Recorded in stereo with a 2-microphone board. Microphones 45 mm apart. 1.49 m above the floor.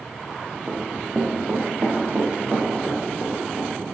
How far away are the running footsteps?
About 2.0 m.